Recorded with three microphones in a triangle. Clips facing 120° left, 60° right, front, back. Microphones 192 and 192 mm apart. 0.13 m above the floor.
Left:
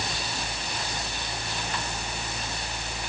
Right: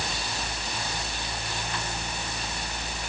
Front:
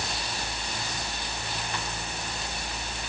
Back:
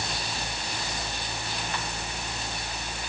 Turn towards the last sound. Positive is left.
No sound to turn to.